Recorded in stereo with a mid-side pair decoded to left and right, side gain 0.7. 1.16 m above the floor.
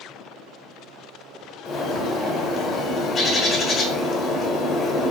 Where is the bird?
30° left, 0.7 m.